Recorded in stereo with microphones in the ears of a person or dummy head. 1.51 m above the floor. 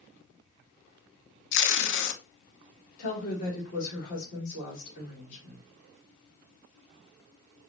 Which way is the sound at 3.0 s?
50° left (ahead or behind).